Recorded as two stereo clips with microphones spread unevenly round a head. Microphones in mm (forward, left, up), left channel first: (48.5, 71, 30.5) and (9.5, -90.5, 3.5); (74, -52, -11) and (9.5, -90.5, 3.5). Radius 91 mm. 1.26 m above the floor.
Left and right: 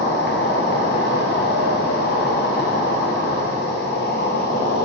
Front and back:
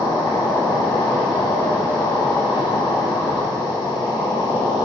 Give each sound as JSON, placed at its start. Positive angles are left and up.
{"t": 0.0, "sound": "an insect", "azimuth_deg": 50, "distance_m": 1.3}